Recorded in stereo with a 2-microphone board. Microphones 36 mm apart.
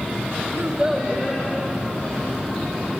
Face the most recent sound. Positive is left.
turn(degrees=25)  # may be behind; listen again after turning